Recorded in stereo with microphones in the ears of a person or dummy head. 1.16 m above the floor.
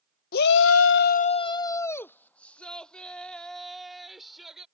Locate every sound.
0.3 s a shout: 50° left (ahead or behind); by 4.7 s centre (ahead or behind)